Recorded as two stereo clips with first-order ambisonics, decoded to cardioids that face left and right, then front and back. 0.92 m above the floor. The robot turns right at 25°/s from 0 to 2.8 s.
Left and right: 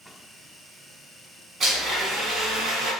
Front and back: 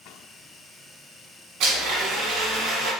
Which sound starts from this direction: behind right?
A blender, at 1.6 s.